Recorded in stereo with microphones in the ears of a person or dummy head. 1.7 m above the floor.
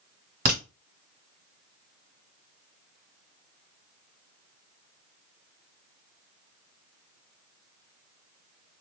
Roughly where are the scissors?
No scissors in this recording.